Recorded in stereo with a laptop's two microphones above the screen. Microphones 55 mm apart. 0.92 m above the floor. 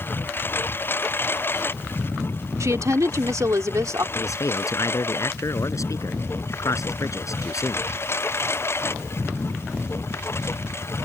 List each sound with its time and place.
0.0 s a lawn mower: 40° left (ahead or behind); by 11.1 s 50° left (ahead or behind)
2.6 s a woman speaking: 75° right (ahead or behind)
4.2 s a man speaking: 75° left (ahead or behind)